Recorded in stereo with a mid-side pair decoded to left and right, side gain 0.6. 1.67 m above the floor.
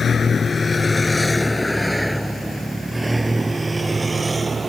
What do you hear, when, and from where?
0.0 s a vehicle: 35° left; by 4.7 s 20° right